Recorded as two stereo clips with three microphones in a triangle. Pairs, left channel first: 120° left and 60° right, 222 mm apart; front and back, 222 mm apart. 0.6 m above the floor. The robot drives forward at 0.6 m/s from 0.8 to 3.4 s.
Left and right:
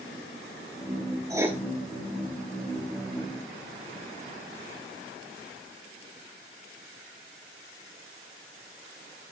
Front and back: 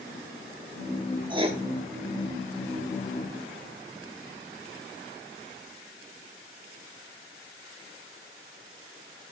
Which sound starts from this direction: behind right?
Writing, at 1.3 s.